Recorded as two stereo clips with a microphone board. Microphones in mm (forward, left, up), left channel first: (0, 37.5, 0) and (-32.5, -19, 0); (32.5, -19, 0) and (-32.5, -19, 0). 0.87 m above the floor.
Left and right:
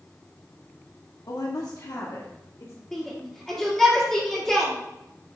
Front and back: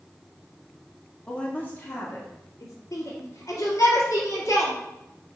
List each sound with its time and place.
1.3 s a woman speaking: 75° left, 1.3 m; by 2.7 s 35° left, 2.5 m
2.9 s a shout: 20° right, 2.5 m